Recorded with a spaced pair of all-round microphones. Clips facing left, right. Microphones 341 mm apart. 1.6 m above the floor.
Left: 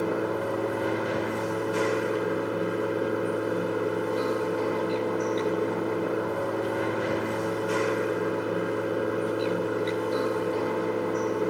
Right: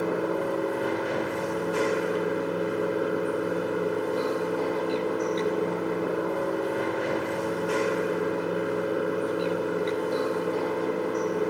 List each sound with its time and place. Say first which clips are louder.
0.0 s running water: right 1 dB; 10° left (ahead or behind), 1.3 m